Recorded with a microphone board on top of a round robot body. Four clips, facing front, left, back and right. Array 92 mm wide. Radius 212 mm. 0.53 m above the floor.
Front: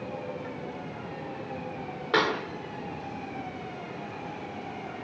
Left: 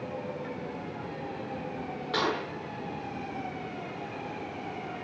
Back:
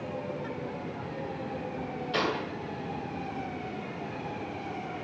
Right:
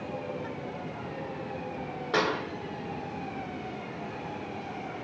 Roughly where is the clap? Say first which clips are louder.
Right 2 dB, front 5 dB; ahead.